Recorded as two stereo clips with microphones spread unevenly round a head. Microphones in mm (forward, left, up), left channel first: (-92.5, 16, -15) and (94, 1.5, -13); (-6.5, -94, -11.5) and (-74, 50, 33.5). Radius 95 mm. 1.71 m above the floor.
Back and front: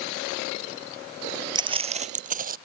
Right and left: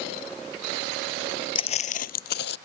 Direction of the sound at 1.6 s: 5° right.